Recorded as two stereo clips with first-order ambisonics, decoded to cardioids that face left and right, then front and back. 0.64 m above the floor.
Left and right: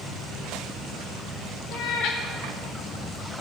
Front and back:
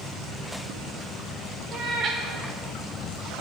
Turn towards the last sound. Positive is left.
turn(degrees=125)